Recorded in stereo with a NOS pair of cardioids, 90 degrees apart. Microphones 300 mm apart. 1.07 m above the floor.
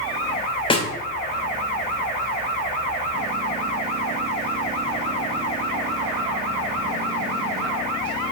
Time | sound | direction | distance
0.7 | a snare drum | 15° left | 1.0 m